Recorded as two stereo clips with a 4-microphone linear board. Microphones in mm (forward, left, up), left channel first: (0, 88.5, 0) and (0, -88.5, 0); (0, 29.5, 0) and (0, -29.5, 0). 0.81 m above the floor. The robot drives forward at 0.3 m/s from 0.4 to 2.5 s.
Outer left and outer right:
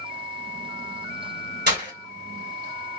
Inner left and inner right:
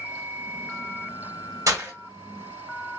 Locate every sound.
1.7 s breaking glass: 70° right (ahead or behind), 1.5 m